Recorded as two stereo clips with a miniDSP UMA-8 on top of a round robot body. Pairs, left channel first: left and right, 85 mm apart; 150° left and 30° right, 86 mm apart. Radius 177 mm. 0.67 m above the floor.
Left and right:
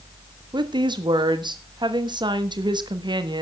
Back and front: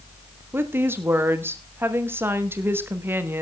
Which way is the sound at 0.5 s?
90° right.